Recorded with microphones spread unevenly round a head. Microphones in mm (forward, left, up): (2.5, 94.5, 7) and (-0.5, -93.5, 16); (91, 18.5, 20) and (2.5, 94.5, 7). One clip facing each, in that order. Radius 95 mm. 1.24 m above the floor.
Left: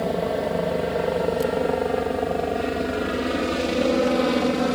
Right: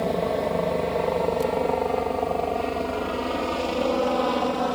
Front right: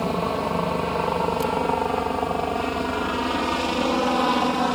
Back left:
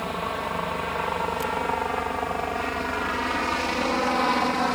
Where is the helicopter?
5° left; by 4.8 s 35° left.